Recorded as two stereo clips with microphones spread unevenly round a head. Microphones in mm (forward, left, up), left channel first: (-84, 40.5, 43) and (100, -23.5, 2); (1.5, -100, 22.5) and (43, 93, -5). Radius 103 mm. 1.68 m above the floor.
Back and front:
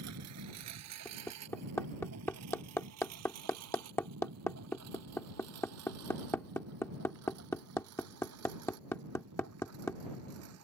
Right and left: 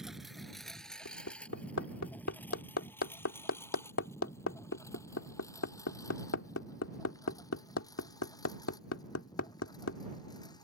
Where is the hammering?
125° right.